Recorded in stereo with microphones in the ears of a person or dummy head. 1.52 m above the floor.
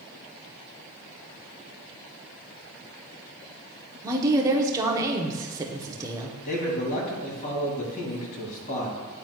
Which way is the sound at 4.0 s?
15° right (ahead or behind).